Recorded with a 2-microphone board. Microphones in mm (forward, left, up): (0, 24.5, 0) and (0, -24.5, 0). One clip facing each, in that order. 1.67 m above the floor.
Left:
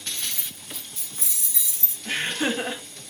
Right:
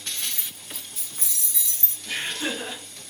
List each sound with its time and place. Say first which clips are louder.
0.2 s keys jangling: even; 30° right (ahead or behind), 0.9 m; by 1.9 s 15° left (ahead or behind), 1.2 m
2.0 s laughter: left 3 dB; 50° left (ahead or behind), 0.9 m